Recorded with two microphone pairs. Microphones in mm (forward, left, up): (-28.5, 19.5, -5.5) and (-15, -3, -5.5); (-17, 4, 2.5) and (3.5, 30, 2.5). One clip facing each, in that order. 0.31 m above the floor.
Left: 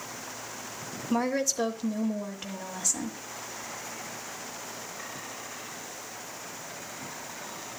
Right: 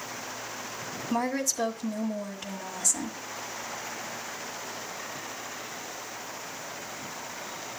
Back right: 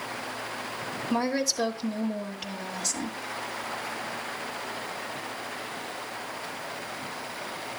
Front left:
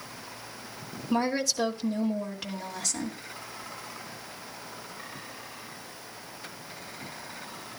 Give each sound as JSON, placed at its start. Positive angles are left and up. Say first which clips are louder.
{"t": 1.1, "sound": "a woman speaking", "louder": "left 1 dB, even", "azimuth_deg": 155, "distance_m": 1.2}